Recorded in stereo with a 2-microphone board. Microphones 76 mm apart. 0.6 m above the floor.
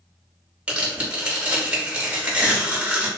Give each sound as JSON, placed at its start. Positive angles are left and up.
{"t": 0.7, "sound": "tearing paper", "side_deg": -20, "distance_m": 1.0}